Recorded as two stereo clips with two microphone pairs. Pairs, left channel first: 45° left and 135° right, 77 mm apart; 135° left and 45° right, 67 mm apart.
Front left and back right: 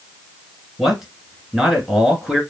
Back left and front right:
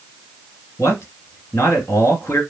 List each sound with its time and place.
0.8 s a man speaking: 140° left, 1.6 m